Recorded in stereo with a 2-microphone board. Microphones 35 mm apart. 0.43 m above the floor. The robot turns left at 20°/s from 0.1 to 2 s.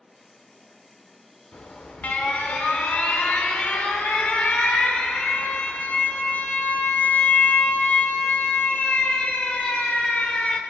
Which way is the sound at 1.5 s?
40° left (ahead or behind).